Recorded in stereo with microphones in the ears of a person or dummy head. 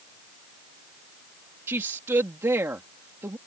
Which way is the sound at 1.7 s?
15° right (ahead or behind).